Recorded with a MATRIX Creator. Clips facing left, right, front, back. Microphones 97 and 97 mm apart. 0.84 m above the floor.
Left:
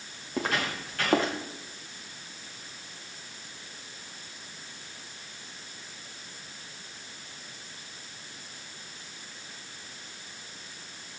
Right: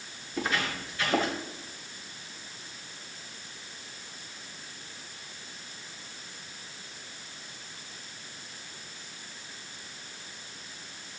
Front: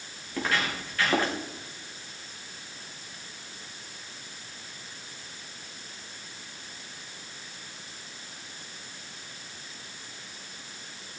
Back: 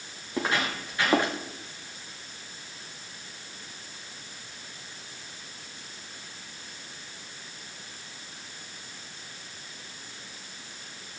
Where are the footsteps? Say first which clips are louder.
Left 1 dB, back 1 dB; 110° left, 5 m.